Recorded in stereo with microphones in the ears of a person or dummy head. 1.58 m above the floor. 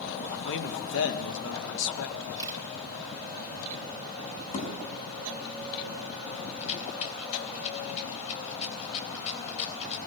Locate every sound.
0.4 s a man speaking: 65° left (ahead or behind), 2.5 m
2.4 s a camera shutter: 20° right (ahead or behind), 3 m
4.5 s a thud: 40° left (ahead or behind), 4.5 m
6.6 s a rattle: 35° left (ahead or behind), 3.5 m